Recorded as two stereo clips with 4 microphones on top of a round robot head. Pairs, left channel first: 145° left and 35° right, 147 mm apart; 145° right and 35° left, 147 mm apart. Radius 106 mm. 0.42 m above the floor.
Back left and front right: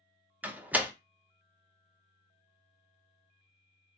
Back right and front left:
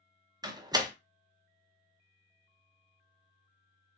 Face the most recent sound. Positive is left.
turn(degrees=30)